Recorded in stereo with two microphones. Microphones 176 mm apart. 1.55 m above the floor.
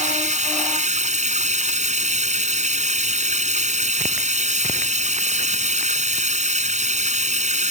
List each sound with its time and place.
0.0 s running water: 40° right (ahead or behind)